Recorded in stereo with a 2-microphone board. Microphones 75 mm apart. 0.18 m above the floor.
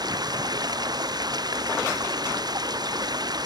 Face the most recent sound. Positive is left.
turn(degrees=-60)  # may be behind; listen again after turning